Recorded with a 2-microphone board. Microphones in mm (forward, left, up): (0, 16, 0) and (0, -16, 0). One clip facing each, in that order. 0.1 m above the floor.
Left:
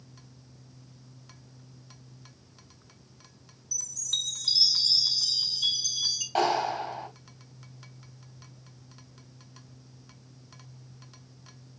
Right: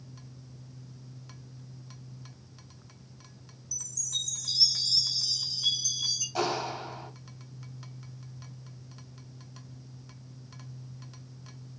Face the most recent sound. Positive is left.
turn(degrees=55)  # may be behind; listen again after turning